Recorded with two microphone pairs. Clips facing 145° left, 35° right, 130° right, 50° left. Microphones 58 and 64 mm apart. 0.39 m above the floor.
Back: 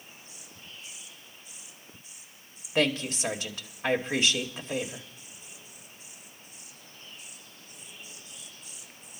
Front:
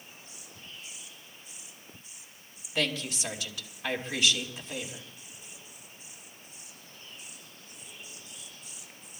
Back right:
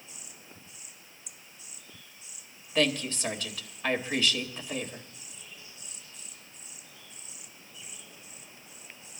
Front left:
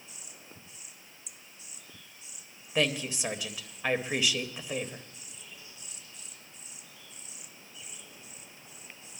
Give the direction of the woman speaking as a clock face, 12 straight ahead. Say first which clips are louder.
Back 5 dB, back right 2 dB; 8 o'clock.